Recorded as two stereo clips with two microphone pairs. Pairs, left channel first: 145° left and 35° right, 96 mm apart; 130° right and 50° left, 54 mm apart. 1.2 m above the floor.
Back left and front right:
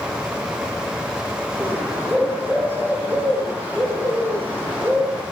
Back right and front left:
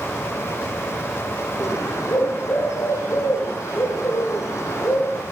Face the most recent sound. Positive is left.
turn(degrees=-105)